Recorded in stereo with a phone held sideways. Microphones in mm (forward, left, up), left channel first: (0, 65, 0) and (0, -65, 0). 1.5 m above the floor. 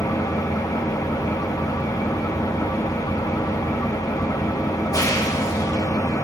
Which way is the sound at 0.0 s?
25° left (ahead or behind).